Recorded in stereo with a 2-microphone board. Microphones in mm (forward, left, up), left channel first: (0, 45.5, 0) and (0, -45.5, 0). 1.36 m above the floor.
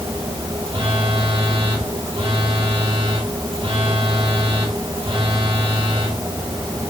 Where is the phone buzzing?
80° right, 5.5 m.